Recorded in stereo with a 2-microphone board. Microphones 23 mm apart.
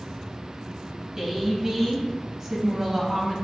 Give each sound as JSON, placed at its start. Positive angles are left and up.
{"t": 1.2, "sound": "a woman speaking", "side_deg": -20, "distance_m": 1.0}